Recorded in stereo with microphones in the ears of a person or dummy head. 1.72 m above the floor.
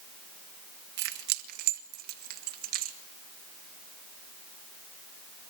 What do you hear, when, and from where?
1.0 s keys jangling: 65° right (ahead or behind), 1.5 m; by 3.0 s 50° right (ahead or behind), 2.5 m